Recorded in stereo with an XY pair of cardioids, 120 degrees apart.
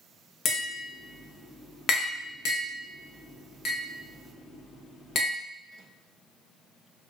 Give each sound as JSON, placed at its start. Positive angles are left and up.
{"t": 0.5, "sound": "tapping", "azimuth_deg": 45, "distance_m": 0.9}